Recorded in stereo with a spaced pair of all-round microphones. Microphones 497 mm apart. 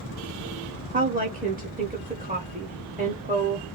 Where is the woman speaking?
15° right (ahead or behind), 0.6 m.